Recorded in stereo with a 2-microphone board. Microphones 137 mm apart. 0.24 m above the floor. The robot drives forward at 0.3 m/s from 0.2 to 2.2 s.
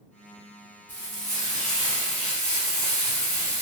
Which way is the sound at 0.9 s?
20° right (ahead or behind).